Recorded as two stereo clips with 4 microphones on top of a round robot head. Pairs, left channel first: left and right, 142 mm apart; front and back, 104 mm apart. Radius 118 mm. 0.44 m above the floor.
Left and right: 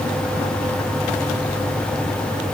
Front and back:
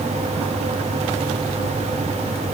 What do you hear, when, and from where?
Only background noise.